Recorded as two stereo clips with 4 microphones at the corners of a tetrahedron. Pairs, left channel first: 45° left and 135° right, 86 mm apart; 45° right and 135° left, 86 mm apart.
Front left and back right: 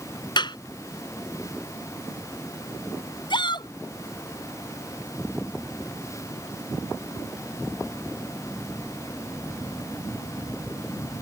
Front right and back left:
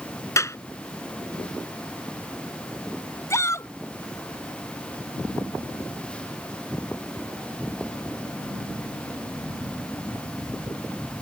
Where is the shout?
15° left.